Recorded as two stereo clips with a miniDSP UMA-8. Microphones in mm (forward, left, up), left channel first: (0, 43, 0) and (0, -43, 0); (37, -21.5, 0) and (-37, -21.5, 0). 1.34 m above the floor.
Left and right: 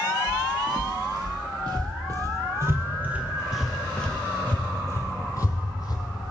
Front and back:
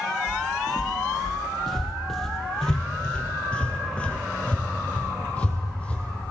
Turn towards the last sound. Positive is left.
turn(degrees=70)